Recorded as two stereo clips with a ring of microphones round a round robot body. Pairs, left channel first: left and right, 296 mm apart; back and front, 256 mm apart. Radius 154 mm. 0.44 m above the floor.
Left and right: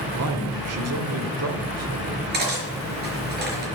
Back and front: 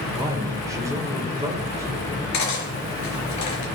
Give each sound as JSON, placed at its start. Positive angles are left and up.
{"t": 0.1, "sound": "a man speaking", "azimuth_deg": -75, "distance_m": 1.9}
{"t": 2.3, "sound": "cutlery clinking", "azimuth_deg": -150, "distance_m": 4.0}